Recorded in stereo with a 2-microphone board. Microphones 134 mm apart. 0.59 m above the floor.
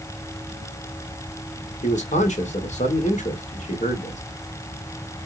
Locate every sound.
1.8 s a man speaking: 65° left (ahead or behind), 1.6 m